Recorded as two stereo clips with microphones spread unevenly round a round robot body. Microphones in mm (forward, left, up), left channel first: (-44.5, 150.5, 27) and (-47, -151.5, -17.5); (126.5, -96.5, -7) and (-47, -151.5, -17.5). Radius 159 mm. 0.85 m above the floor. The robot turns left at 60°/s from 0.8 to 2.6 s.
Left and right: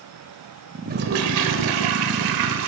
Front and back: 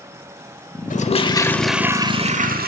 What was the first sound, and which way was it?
A toilet flushing, 25° right.